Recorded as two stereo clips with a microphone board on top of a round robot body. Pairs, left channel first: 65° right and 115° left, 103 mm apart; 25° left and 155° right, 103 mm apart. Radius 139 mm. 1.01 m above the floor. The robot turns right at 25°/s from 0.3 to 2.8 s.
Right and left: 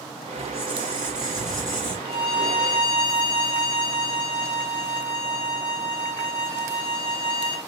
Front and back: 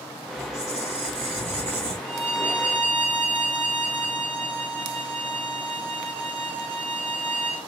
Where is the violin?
150° left, 2.0 m; by 7.7 s 170° left, 2.0 m.